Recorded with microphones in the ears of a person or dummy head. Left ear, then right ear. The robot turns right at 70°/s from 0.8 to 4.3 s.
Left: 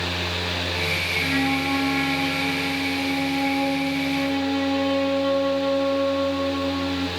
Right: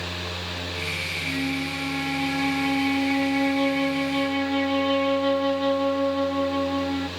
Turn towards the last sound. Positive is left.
turn(degrees=-30)